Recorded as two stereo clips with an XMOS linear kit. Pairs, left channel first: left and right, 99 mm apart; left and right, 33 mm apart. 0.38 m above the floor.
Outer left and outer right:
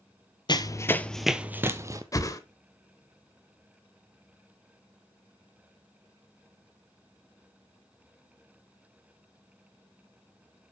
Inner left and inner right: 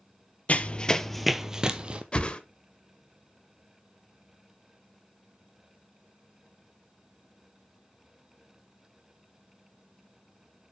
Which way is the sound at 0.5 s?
45° left (ahead or behind).